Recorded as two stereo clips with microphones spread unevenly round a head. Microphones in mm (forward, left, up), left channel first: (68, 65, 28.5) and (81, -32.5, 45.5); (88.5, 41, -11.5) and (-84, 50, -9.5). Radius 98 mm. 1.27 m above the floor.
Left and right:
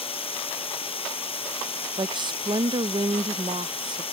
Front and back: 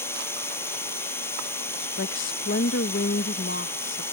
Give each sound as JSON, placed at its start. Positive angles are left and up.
{"t": 0.0, "sound": "running water", "azimuth_deg": 75}
{"t": 2.0, "sound": "a woman speaking", "azimuth_deg": -40}